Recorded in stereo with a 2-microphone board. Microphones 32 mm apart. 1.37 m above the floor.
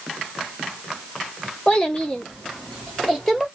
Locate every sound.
1.7 s a child speaking: 30° left (ahead or behind), 1.3 m; by 3.5 s centre (ahead or behind), 1.8 m